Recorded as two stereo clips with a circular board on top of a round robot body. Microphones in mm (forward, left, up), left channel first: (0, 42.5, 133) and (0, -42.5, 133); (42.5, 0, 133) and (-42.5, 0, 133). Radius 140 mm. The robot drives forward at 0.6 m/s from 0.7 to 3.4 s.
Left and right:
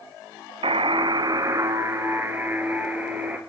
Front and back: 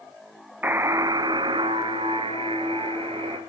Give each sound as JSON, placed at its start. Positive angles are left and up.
{"t": 0.6, "sound": "a buzzer", "azimuth_deg": -110, "distance_m": 0.5}